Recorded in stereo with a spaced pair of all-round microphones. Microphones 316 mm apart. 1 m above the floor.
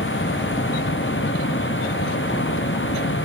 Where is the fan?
35° left (ahead or behind).